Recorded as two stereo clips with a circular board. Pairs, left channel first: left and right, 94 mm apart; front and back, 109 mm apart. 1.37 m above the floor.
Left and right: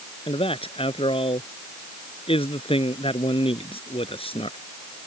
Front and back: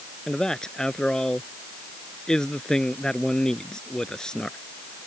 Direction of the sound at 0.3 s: 85° left.